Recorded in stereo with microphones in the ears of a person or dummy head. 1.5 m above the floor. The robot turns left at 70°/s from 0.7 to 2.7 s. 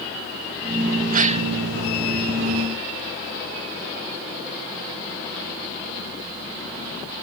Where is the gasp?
55° right (ahead or behind); by 1.5 s 30° right (ahead or behind).